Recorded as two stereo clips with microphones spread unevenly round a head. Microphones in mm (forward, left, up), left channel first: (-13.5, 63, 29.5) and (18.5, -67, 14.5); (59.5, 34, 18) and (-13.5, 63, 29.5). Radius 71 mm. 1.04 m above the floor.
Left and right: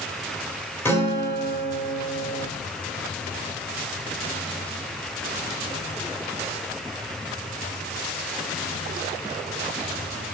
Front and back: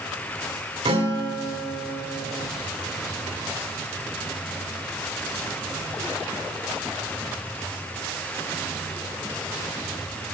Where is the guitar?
Straight behind, 2.5 m.